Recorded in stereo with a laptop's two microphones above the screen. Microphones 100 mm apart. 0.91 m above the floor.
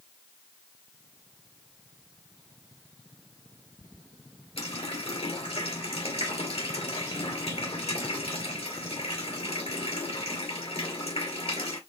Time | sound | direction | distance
4.6 | a running tap | 80° left | 2.5 m